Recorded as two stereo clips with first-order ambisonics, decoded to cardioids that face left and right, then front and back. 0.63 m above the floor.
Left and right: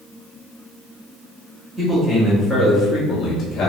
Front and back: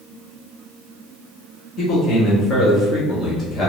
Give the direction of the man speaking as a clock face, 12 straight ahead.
1 o'clock.